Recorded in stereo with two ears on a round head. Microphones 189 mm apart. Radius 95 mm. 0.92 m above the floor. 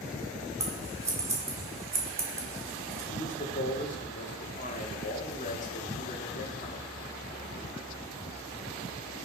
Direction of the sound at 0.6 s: 15° right (ahead or behind).